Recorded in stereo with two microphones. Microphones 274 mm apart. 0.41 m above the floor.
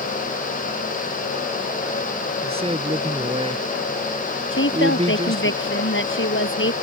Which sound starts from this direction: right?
A man speaking, at 2.4 s.